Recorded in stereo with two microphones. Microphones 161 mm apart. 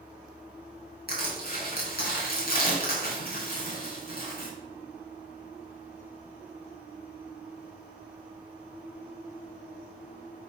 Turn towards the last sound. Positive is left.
turn(degrees=70)  # may be behind; listen again after turning